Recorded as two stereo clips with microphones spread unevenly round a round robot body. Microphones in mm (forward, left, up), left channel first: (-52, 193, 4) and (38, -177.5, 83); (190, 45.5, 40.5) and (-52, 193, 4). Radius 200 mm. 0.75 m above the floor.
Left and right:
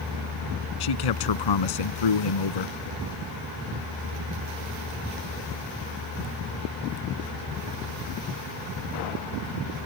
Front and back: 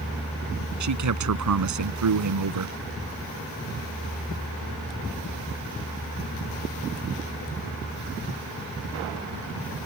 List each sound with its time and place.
0.8 s a man speaking: 130° left